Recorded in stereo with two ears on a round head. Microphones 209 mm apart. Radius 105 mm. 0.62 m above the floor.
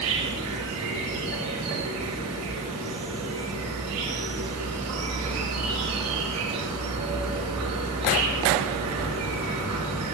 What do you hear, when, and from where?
0.0 s an insect: 80° right, 3 m